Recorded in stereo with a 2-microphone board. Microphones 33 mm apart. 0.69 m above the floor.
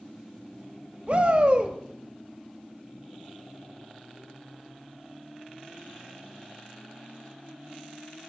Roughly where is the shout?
Right.